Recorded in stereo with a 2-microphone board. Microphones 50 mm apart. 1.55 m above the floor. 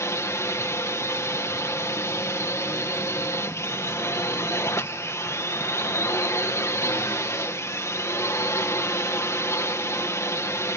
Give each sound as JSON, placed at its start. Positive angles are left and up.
{"t": 0.0, "sound": "a drone", "side_deg": 65}